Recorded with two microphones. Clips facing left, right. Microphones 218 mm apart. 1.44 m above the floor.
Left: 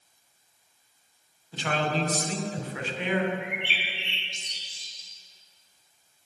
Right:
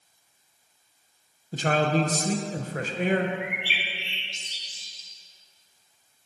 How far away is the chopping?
No chopping in this recording.